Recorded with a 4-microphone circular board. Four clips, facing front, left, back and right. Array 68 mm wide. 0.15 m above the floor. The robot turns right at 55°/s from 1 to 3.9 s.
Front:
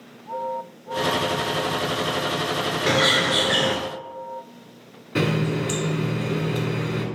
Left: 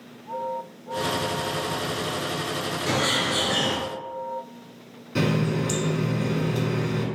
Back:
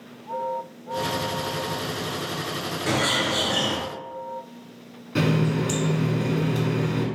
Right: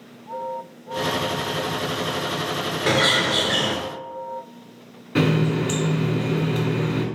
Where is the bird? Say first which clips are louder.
Right 5 dB, front 3 dB; 60° right, 0.7 m; by 3.8 s 10° right, 0.7 m.